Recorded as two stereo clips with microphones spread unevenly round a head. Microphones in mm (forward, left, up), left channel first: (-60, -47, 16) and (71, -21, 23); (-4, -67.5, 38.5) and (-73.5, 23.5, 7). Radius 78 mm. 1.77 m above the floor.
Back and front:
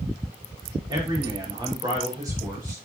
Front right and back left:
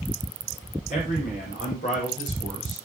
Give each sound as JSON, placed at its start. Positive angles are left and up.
{"t": 0.9, "sound": "a man speaking", "azimuth_deg": -50, "distance_m": 5.5}